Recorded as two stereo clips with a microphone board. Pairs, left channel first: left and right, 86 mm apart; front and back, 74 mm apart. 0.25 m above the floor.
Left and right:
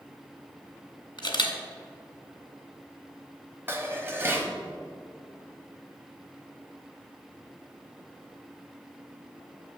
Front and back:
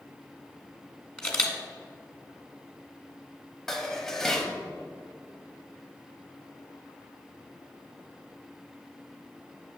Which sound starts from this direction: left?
A camera shutter, at 1.2 s.